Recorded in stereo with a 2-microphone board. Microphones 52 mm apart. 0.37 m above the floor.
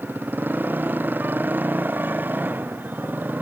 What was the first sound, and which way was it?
A motorcycle, 40° right (ahead or behind).